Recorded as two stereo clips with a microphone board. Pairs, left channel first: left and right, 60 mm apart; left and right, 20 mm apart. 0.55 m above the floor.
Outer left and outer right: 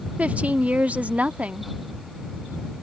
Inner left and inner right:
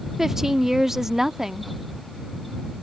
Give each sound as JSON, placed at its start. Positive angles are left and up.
{"t": 0.2, "sound": "a woman speaking", "side_deg": -25}